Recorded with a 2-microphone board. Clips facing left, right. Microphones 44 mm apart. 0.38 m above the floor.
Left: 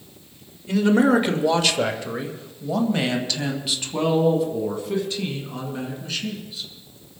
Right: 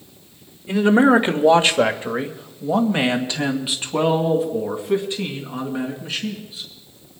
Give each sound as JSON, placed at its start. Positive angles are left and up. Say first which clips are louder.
{"t": 0.7, "sound": "a man speaking", "louder": "right 3 dB", "side_deg": -20, "distance_m": 1.0}